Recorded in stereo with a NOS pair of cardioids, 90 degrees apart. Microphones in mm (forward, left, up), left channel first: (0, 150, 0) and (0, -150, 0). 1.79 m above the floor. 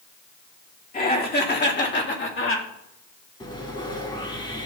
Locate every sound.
0.9 s laughter: 30° left, 3.5 m; by 2.7 s 45° left, 3 m
3.4 s sawing: 15° left, 3.5 m